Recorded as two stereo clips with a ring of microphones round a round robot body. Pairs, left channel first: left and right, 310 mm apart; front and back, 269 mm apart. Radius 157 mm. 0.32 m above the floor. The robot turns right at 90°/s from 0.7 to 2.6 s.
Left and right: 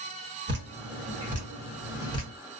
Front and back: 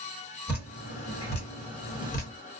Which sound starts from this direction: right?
Dripping, at 0.5 s.